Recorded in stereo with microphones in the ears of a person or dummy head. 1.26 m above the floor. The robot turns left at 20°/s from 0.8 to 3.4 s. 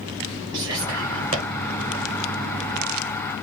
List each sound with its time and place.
0.5 s whispering: 25° right (ahead or behind), 1.3 m; by 1.4 s 35° right (ahead or behind), 1.3 m